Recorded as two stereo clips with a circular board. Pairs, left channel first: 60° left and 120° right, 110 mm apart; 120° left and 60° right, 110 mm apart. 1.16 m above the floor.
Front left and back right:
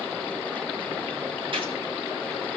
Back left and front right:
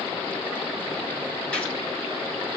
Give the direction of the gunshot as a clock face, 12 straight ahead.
5 o'clock.